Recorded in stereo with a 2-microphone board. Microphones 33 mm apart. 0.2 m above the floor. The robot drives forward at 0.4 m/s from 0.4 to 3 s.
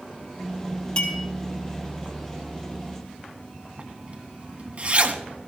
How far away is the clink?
About 2 m.